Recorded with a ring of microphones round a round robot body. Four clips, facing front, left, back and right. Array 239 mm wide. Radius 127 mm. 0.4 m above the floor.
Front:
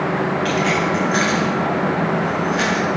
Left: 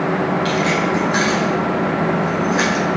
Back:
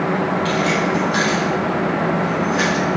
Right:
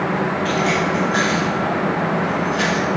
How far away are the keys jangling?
About 2.5 m.